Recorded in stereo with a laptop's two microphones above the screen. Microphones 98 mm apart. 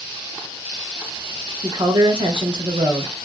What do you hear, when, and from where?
1.6 s a woman speaking: 50° right (ahead or behind), 0.9 m